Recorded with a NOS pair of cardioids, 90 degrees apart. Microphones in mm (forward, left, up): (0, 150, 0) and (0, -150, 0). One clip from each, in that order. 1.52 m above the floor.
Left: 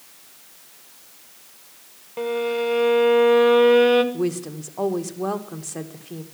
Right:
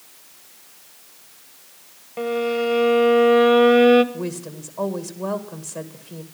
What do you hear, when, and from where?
2.2 s a violin: straight ahead, 1.1 m
4.1 s a woman speaking: 20° left, 1.7 m